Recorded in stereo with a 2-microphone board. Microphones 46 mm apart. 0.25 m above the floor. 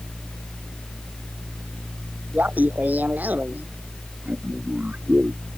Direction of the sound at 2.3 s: 35° right (ahead or behind).